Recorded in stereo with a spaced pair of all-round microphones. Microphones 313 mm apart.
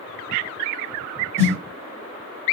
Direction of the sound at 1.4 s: 5° left (ahead or behind).